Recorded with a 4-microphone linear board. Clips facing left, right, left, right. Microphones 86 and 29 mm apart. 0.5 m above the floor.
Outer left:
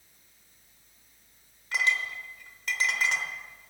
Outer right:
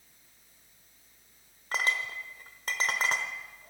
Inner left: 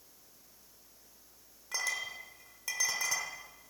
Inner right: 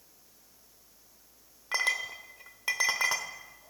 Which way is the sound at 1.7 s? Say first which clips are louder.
Outer left 2 dB, inner right 6 dB; 40° right (ahead or behind).